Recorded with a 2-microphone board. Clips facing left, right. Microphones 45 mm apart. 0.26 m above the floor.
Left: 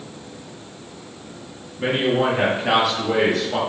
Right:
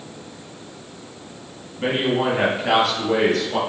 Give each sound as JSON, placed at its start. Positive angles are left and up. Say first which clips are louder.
{"t": 1.8, "sound": "a man speaking", "louder": "left 1 dB", "side_deg": -5, "distance_m": 2.0}